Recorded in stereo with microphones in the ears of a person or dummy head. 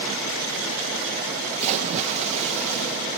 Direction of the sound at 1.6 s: 40° right (ahead or behind).